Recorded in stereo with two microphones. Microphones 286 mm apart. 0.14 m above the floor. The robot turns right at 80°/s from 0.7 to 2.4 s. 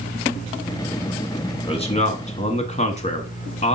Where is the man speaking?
20° left (ahead or behind), 1.1 m; by 3.8 s 25° left (ahead or behind), 1.1 m.